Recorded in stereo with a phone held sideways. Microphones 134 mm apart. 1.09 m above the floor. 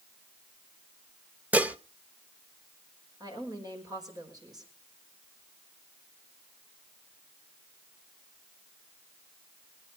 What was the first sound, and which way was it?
Dishes clattering, 10° right (ahead or behind).